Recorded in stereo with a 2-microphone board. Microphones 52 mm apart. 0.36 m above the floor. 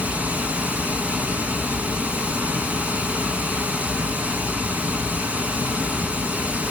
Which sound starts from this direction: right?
Running water, at 0.0 s.